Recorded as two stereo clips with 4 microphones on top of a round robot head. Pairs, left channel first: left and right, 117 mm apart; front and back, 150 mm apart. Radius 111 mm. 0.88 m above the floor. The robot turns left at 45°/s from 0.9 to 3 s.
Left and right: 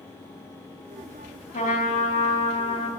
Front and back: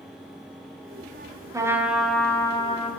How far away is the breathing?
No breathing in this recording.